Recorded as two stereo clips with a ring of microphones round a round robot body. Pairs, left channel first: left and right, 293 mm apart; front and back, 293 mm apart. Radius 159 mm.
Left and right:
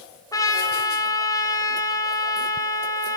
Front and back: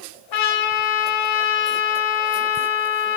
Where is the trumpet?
10° left, 3.5 m.